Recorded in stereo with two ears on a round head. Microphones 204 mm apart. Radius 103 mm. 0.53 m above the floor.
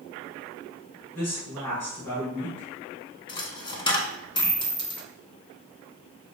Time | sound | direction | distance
1.1 | a woman speaking | 10° left (ahead or behind) | 2.0 m
3.3 | a dropped coin | 20° left (ahead or behind) | 0.6 m